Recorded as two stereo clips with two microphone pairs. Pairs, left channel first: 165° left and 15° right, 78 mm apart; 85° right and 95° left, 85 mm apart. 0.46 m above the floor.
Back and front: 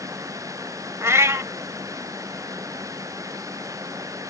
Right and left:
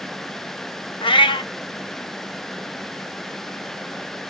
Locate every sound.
1.0 s a cat meowing: 70° right, 0.5 m